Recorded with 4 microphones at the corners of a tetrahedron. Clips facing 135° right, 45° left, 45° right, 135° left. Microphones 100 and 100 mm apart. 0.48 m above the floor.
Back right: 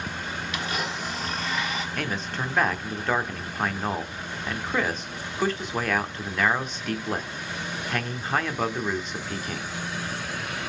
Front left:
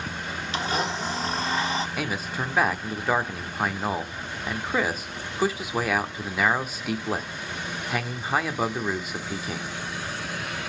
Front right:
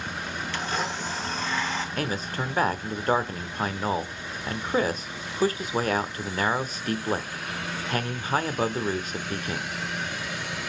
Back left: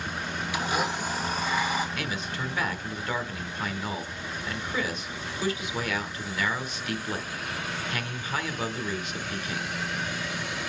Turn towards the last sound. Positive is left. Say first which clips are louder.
# front left 1 dB, front right 3 dB
turn(degrees=-35)